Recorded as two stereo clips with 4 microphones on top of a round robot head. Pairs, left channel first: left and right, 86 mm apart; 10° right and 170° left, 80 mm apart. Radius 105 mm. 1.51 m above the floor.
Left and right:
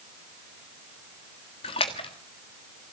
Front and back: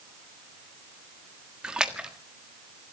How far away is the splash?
About 1.3 m.